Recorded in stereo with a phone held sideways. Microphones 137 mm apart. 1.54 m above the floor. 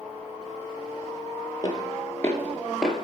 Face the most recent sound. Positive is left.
turn(degrees=-5)  # may be behind; listen again after turning